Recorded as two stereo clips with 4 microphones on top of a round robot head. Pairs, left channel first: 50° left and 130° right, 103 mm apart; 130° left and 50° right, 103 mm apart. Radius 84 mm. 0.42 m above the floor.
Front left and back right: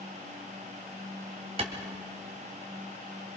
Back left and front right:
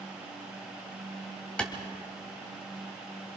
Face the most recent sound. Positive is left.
turn(degrees=-150)